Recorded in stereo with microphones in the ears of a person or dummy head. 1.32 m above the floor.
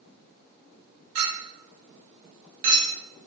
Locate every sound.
1.1 s a clink: 45° right (ahead or behind), 0.8 m